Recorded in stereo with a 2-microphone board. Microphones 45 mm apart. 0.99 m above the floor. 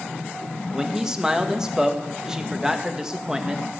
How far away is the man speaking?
About 1.5 m.